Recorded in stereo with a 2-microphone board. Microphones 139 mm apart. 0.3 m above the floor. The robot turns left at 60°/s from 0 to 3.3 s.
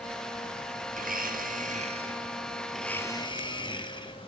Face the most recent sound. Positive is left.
turn(degrees=145)